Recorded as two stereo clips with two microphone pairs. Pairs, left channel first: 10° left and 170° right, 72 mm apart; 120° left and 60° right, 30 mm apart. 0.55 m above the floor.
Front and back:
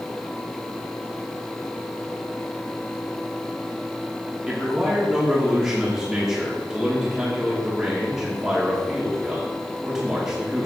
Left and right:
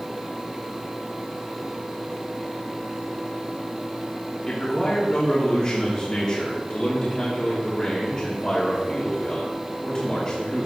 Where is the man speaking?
120° left, 1.4 m.